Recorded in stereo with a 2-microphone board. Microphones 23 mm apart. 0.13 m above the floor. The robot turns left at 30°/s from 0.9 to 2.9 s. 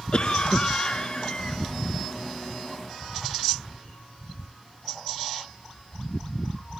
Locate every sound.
0.1 s a cough: 40° left (ahead or behind), 1.4 m; by 1.6 s 35° left (ahead or behind), 1.4 m